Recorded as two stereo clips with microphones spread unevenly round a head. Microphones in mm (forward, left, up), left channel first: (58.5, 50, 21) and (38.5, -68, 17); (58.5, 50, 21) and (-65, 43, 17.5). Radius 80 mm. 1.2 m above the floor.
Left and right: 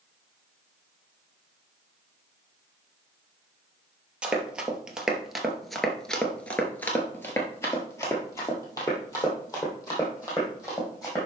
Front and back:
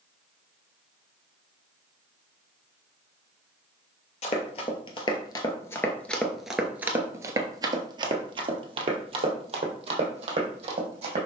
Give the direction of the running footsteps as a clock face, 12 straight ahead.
1 o'clock.